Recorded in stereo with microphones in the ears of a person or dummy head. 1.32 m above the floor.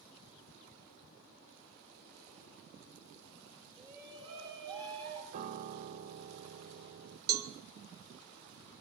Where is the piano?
40° right (ahead or behind), 1.2 m.